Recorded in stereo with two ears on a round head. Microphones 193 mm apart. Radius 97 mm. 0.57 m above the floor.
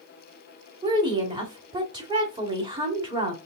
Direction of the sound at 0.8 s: 20° right (ahead or behind).